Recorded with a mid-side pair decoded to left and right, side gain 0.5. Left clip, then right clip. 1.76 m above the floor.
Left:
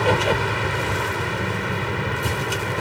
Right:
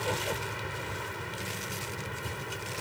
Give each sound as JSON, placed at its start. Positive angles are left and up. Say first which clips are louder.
{"t": 0.0, "sound": "a vehicle", "louder": "left 13 dB", "azimuth_deg": 70}